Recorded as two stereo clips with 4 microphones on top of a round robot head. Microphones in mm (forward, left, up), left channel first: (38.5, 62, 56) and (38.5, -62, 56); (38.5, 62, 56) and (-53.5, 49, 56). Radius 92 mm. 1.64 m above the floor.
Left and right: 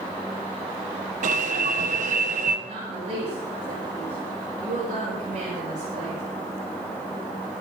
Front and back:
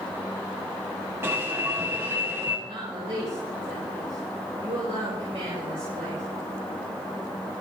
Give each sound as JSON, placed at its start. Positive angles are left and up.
{"t": 1.2, "sound": "an alarm", "azimuth_deg": -105, "distance_m": 2.0}
{"t": 2.7, "sound": "a woman speaking", "azimuth_deg": -130, "distance_m": 7.5}